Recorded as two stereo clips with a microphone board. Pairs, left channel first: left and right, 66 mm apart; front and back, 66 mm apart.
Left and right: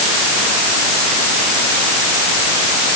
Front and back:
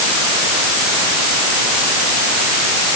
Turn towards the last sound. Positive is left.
No sound to turn to.